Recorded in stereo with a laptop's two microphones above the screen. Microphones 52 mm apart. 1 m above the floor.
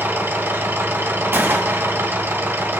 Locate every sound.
0.0 s a machine running: 45° right (ahead or behind), 2.0 m
1.3 s a gunshot: 45° right (ahead or behind), 2.0 m